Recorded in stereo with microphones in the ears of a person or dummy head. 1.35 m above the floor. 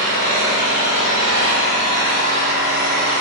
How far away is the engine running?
About 1.9 m.